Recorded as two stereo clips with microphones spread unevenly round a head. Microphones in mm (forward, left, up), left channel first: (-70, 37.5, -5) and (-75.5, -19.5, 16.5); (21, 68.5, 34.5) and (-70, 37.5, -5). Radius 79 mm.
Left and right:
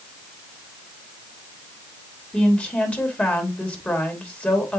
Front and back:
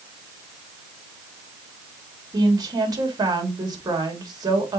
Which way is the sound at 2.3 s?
150° left.